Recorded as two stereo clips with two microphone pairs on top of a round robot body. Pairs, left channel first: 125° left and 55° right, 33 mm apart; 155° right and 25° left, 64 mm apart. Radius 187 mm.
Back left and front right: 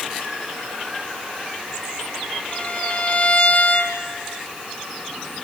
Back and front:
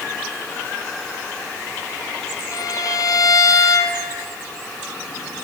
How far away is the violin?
About 1.4 m.